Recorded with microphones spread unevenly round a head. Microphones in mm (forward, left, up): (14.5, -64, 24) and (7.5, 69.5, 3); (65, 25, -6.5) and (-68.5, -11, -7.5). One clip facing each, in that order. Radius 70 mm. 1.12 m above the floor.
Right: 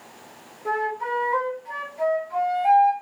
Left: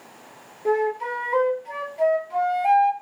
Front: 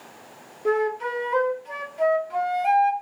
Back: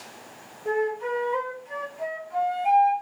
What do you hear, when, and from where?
0.7 s a flute: 30° left, 2.5 m